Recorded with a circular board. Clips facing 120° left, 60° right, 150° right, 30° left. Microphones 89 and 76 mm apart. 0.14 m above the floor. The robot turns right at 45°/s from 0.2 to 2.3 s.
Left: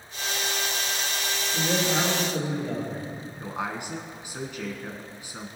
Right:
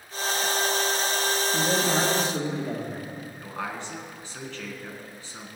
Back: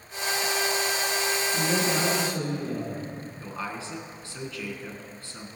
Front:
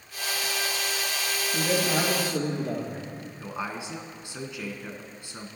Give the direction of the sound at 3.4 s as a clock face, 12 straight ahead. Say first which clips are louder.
Left 3 dB, front 2 dB; 10 o'clock.